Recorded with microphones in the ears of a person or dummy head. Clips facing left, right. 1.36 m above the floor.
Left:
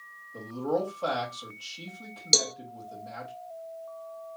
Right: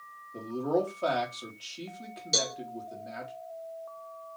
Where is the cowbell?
70° left (ahead or behind), 0.7 m.